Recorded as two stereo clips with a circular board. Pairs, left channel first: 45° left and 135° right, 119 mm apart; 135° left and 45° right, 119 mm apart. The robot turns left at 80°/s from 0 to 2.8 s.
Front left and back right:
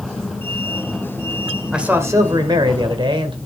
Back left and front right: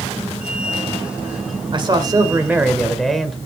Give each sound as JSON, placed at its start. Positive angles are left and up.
{"t": 1.7, "sound": "a man speaking", "azimuth_deg": -50, "distance_m": 1.5}